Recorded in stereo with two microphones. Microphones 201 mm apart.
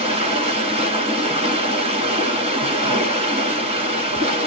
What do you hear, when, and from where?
0.0 s running water: 30° right (ahead or behind), 1.8 m